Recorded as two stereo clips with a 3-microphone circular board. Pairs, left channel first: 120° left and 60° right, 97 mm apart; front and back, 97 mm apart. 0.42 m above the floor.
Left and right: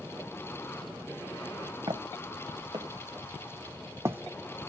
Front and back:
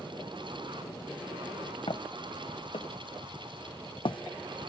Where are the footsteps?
25° right, 2 m; by 4.2 s 10° left, 0.8 m.